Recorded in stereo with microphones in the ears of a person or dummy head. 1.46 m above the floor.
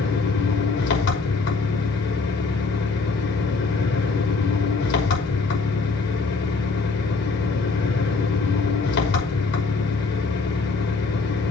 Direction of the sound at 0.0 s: 60° left (ahead or behind).